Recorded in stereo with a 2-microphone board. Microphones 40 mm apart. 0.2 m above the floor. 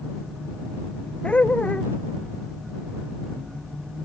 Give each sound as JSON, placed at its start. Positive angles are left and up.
{"t": 1.2, "sound": "laughter", "side_deg": 30}